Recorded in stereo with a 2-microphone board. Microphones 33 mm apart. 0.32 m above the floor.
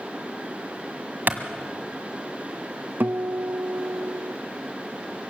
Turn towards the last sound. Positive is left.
turn(degrees=-80)